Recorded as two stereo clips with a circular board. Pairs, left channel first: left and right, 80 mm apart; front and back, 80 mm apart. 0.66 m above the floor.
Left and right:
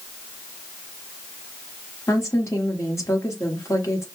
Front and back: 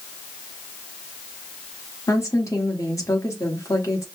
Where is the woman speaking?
45° left, 1.4 m.